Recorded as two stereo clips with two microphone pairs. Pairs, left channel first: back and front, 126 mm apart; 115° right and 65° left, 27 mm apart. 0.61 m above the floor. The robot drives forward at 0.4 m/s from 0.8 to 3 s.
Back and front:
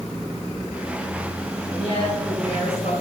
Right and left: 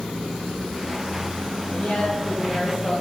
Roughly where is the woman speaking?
Behind right.